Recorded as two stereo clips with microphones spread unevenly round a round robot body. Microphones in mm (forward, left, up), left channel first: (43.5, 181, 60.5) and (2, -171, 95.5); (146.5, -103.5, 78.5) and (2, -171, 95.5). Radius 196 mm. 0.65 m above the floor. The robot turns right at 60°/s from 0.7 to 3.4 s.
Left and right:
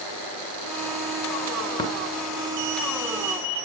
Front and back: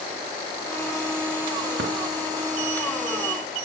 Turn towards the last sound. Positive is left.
turn(degrees=-100)